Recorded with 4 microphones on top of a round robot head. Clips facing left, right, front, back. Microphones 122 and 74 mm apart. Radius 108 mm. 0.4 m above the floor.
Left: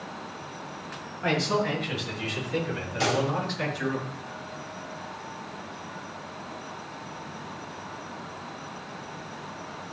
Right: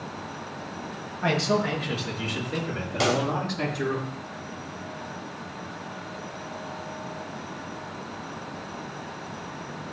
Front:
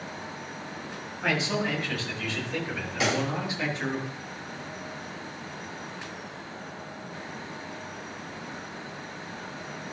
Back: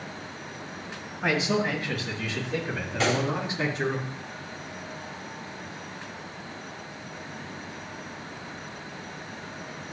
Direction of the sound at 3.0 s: 85° right.